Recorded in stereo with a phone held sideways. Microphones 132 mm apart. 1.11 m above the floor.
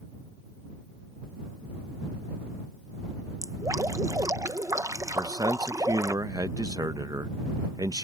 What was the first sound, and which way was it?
Dripping, 25° right (ahead or behind).